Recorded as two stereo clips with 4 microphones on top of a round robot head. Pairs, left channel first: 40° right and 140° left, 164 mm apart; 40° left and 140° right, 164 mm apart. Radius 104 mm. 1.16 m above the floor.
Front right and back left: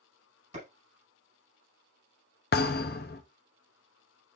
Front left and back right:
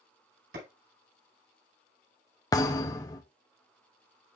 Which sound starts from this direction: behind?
A clap, at 0.5 s.